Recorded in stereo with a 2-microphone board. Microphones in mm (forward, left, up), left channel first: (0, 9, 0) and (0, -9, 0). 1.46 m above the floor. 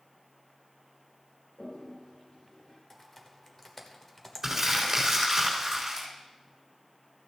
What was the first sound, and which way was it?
A toilet flushing, 60° left (ahead or behind).